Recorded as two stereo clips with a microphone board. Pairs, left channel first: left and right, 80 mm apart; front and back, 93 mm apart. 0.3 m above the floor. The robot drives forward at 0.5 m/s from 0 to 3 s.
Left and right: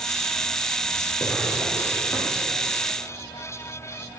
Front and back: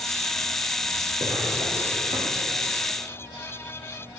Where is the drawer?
170° left, 7 m.